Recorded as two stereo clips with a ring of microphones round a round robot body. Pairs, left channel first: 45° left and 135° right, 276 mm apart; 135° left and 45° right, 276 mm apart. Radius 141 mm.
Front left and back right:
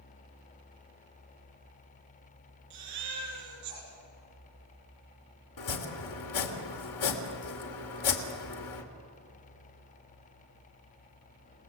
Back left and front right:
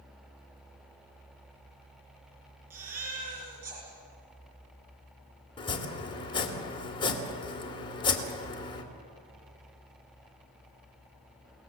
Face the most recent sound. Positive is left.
turn(degrees=60)